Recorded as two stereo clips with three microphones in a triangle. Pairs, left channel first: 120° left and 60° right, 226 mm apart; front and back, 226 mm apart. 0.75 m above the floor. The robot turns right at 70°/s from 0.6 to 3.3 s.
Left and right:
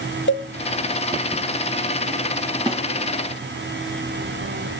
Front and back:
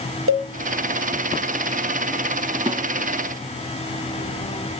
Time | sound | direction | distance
0.3 | a cowbell | 155° left | 1.2 m
2.7 | a snare drum | 125° right | 1.5 m